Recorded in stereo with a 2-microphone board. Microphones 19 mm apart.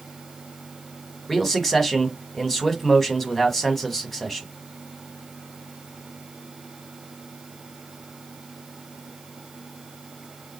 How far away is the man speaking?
About 1.0 m.